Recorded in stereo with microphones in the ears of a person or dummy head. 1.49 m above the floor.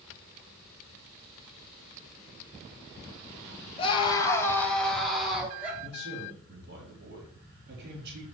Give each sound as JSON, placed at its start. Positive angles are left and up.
{"t": 3.8, "sound": "a scream", "side_deg": 30, "distance_m": 1.6}
{"t": 5.8, "sound": "a man speaking", "side_deg": -60, "distance_m": 3.0}